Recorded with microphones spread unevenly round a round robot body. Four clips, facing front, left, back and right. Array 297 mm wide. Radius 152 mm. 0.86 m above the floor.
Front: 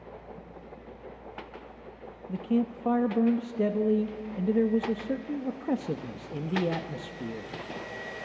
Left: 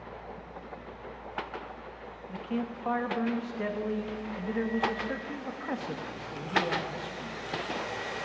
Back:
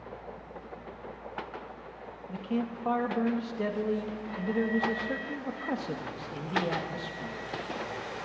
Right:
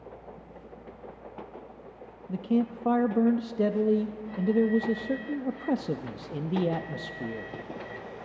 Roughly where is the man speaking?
Ahead right.